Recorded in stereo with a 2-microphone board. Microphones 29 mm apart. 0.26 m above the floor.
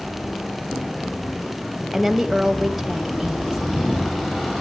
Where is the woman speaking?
Centre (ahead or behind), 1.2 m.